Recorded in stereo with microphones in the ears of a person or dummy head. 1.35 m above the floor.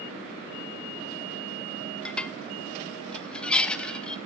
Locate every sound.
2.0 s dishes clattering: 10° left (ahead or behind), 1.1 m